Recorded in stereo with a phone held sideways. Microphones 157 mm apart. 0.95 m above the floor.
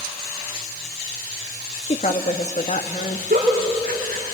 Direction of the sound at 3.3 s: 65° right (ahead or behind).